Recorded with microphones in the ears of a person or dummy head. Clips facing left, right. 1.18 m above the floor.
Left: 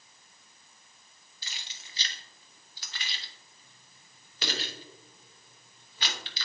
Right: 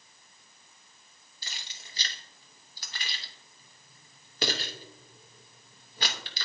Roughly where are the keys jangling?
Right.